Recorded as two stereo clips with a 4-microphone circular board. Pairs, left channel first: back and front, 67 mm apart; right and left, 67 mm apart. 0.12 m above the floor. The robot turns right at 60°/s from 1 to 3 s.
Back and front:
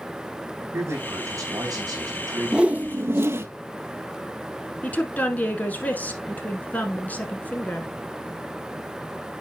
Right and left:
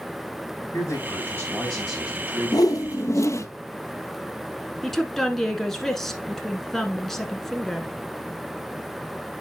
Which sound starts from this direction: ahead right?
A man speaking, at 0.7 s.